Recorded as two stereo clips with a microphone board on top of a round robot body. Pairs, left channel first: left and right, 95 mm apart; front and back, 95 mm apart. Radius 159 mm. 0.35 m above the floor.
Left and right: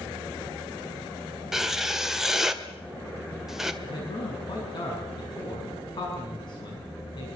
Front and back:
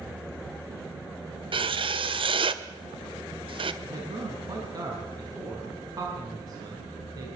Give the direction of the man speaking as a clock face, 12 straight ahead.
8 o'clock.